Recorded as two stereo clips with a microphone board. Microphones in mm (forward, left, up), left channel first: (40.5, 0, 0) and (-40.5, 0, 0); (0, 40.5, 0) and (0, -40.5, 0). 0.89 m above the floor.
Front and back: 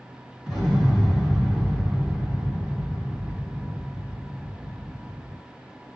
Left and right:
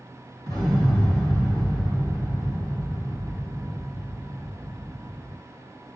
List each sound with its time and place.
0.5 s an explosion: 100° right, 1.7 m